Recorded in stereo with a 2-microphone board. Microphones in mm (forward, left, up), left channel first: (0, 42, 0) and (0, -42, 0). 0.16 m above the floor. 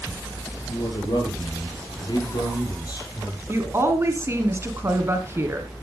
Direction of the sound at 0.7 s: 65° left (ahead or behind).